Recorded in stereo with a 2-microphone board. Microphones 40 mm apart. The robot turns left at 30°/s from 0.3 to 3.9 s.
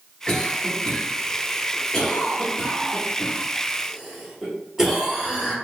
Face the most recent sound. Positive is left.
turn(degrees=-10)  # may be behind; listen again after turning